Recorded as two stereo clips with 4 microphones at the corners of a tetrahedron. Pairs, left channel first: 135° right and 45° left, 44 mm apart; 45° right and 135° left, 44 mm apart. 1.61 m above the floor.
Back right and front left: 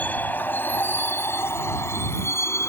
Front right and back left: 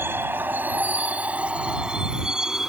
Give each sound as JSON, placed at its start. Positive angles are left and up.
{"t": 0.0, "sound": "a vehicle", "azimuth_deg": 170}